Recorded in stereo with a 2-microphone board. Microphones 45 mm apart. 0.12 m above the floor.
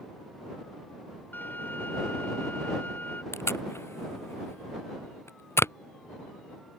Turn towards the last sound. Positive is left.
turn(degrees=75)  # may be behind; listen again after turning